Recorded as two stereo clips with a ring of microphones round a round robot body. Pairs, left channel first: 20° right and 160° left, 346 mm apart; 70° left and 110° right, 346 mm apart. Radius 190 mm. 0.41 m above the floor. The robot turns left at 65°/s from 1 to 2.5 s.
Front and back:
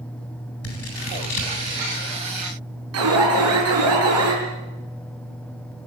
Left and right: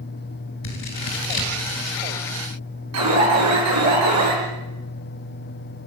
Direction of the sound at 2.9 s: 155° right.